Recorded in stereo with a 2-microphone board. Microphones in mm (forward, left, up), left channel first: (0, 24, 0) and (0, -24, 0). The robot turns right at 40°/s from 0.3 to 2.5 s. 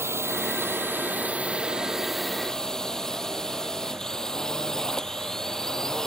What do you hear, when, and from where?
0.0 s a drone: 75° right; by 6.1 s 10° left